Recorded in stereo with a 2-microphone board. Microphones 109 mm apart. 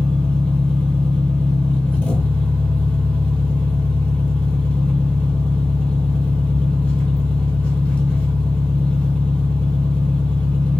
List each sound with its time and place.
0.0 s an engine running: 10° left (ahead or behind), 0.8 m